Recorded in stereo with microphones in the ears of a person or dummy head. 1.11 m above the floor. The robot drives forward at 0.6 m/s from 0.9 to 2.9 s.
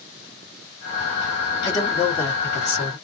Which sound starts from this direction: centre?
A man speaking, at 1.6 s.